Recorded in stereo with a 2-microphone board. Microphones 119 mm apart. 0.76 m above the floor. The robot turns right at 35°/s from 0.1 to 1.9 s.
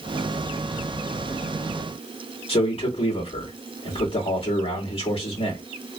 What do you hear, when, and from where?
2.5 s a man speaking: 55° left (ahead or behind), 1.9 m